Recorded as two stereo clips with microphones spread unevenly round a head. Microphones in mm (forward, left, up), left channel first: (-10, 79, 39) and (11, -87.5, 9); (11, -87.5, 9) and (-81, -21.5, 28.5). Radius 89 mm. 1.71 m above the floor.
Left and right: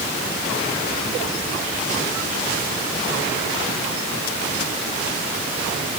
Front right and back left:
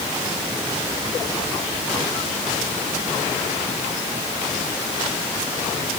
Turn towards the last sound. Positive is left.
No sound to turn to.